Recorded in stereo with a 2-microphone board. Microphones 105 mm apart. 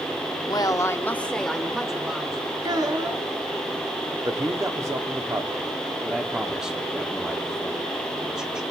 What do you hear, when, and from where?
0.5 s a woman speaking: 40° left (ahead or behind), 0.9 m; by 2.4 s 5° right (ahead or behind), 2.5 m
2.6 s a child speaking: 35° right (ahead or behind), 1.2 m
4.2 s a man speaking: 30° right (ahead or behind), 1.2 m
6.0 s a man speaking: 5° right (ahead or behind), 1.3 m